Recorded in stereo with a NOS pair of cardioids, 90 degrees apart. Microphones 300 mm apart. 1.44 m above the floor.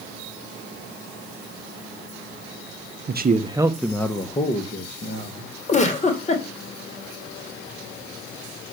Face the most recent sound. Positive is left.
turn(degrees=25)